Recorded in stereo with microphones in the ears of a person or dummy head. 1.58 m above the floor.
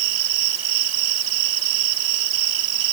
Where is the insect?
75° right (ahead or behind).